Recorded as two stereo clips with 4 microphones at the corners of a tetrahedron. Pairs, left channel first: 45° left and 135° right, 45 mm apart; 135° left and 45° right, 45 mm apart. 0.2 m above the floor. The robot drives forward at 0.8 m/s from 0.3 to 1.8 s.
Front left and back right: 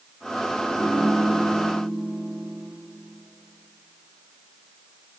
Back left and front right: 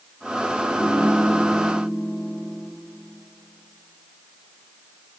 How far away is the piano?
About 6 m.